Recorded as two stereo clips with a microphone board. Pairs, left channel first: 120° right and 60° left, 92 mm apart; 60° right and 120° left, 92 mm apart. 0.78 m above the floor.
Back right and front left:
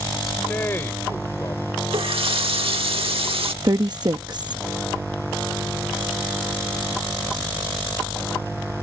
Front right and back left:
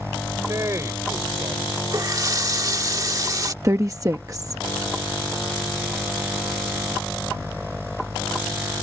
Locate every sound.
0.3 s a man speaking: 170° left; by 1.8 s 175° right
1.9 s a running tap: 70° left
3.6 s a woman speaking: 75° left